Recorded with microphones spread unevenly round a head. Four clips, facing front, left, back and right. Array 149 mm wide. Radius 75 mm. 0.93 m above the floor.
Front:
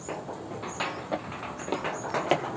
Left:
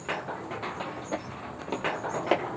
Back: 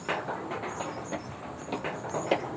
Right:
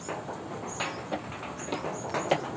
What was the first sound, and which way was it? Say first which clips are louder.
Footsteps: even, front 4 dB; 5° left.